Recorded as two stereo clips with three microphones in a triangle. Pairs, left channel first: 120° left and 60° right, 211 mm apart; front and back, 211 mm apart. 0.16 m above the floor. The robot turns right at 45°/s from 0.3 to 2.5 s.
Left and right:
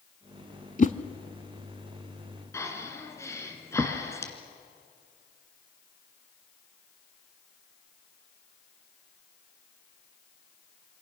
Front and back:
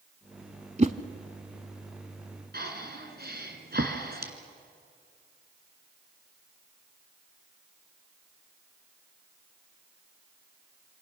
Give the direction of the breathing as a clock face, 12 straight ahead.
6 o'clock.